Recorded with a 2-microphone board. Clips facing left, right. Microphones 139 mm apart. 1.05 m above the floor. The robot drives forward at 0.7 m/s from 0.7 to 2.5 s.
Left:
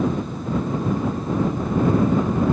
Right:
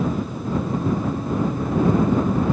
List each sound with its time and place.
Only background noise.